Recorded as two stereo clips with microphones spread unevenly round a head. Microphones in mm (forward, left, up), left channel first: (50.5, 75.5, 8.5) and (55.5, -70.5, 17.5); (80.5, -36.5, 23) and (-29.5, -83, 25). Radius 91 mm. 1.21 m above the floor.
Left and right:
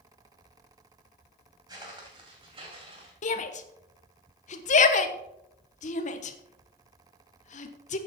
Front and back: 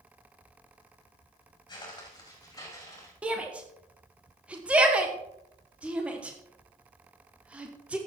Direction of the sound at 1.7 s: 30° right.